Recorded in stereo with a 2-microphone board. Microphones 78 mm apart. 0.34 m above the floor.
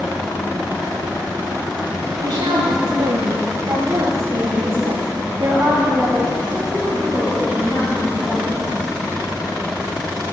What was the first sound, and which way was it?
A woman speaking, 75° right (ahead or behind).